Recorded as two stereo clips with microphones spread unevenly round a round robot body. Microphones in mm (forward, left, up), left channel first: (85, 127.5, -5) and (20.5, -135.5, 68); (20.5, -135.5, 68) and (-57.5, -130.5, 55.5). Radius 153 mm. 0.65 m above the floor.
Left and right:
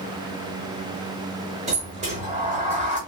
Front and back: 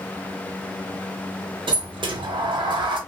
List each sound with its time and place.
1.7 s a sliding door: 165° right, 0.7 m